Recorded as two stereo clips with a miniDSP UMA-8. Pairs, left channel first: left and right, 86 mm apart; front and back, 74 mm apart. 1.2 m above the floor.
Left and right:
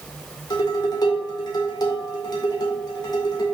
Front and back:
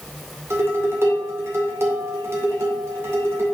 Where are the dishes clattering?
125° left, 2 m.